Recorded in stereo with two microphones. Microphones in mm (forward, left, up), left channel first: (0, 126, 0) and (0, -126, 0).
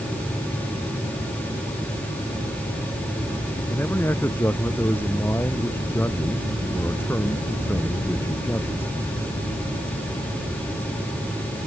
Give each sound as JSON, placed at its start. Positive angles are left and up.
{"t": 3.7, "sound": "a man speaking", "side_deg": 10}